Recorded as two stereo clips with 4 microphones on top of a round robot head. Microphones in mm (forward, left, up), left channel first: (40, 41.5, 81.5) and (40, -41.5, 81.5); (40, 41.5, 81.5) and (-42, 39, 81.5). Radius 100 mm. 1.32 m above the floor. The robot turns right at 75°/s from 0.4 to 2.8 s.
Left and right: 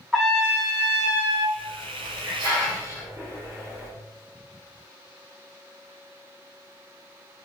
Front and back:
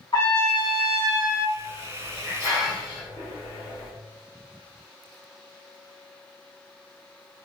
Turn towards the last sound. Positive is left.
turn(degrees=-35)